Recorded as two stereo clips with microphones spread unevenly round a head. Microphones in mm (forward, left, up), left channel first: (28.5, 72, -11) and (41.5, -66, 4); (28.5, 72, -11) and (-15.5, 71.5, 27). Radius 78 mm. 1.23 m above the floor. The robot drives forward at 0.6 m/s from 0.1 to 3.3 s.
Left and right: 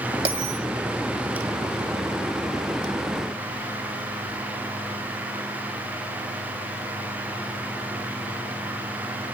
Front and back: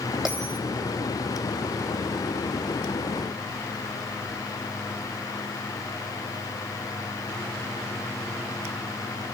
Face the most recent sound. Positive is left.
turn(degrees=-155)